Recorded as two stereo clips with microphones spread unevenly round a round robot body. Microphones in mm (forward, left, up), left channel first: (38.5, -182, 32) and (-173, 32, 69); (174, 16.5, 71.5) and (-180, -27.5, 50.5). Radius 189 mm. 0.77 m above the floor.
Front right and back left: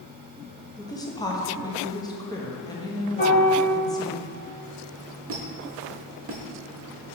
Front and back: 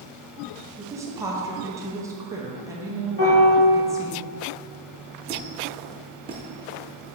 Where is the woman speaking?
105° right, 1.0 m.